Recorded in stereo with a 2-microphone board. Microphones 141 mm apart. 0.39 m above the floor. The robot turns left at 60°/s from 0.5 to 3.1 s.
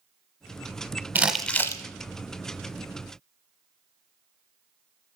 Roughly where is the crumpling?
Centre.